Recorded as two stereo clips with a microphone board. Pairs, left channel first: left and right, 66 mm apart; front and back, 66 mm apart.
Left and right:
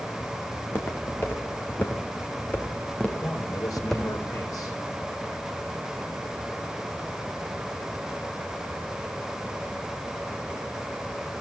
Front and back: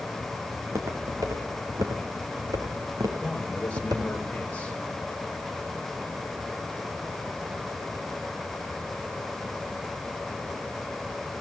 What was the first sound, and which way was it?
Footsteps, 140° left.